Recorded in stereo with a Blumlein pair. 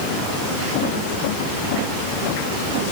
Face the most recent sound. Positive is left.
No sound to turn to.